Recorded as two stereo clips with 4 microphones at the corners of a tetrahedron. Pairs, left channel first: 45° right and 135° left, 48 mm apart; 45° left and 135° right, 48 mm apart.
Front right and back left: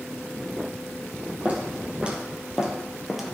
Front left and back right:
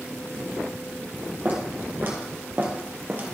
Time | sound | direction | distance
1.4 | footsteps | 175° right | 3 m